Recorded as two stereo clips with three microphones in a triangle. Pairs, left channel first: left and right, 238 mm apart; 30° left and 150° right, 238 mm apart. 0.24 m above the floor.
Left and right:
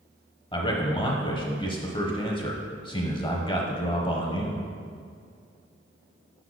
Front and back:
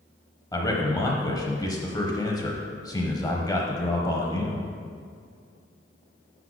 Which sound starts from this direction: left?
A man speaking, at 0.5 s.